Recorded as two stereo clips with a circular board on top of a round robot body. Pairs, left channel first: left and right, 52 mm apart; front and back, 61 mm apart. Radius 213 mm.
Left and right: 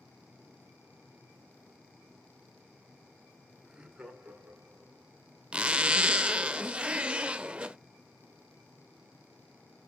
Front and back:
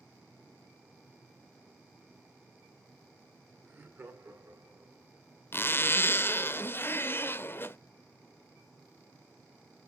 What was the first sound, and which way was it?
Laughter, 155° right.